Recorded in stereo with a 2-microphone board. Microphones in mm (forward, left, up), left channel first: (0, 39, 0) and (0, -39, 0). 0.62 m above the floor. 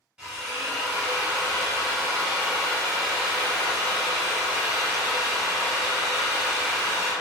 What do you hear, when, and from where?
0.2 s a drill: 10° right (ahead or behind), 1.1 m